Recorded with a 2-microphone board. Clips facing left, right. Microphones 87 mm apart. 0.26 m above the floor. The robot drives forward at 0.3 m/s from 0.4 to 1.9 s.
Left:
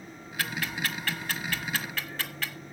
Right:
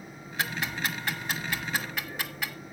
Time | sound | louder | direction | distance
0.4 | ticking | right 1 dB | 20° right (ahead or behind) | 1.0 m